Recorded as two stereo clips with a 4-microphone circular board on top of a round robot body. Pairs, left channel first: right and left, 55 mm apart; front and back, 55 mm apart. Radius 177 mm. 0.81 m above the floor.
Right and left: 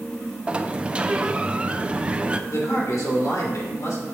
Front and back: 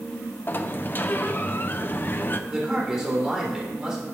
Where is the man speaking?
100° right, 3.5 m.